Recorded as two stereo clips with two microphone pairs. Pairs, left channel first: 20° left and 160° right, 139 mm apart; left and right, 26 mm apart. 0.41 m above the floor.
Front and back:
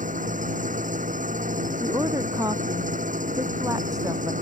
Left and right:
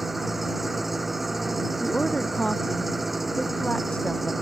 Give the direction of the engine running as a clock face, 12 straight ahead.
6 o'clock.